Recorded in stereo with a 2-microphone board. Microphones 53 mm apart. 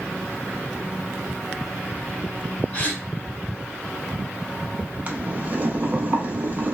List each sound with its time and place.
2.7 s a gasp: 30° left (ahead or behind), 0.8 m
5.1 s boiling: 30° right (ahead or behind), 0.5 m